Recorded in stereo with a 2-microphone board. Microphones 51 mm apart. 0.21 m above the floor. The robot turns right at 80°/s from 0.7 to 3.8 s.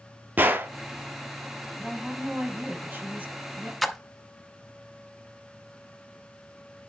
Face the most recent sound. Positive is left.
turn(degrees=0)  # may be behind; listen again after turning